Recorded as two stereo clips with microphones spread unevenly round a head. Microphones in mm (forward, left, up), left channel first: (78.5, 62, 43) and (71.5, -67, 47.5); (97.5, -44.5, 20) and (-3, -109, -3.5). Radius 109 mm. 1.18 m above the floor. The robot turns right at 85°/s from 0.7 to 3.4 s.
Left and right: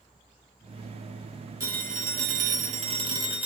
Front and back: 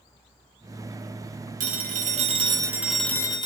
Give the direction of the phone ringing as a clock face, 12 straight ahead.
6 o'clock.